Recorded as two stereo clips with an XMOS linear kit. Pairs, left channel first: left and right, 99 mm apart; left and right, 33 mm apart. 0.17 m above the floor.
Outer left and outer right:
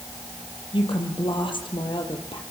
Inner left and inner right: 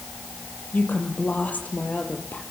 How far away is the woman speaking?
About 5 m.